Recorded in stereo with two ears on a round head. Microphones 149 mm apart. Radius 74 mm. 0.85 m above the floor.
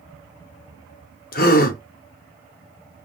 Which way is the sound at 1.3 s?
60° left (ahead or behind).